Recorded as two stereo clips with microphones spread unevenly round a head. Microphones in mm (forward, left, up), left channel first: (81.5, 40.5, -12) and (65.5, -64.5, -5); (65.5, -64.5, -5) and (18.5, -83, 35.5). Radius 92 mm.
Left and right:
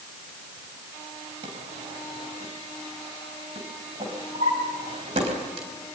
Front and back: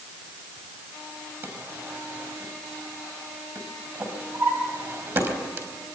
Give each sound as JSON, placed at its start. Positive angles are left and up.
{"t": 1.4, "sound": "a drawer", "azimuth_deg": -140, "distance_m": 4.0}